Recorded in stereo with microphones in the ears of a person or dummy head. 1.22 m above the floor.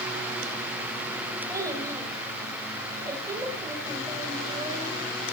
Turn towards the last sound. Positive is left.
turn(degrees=-10)  # may be behind; listen again after turning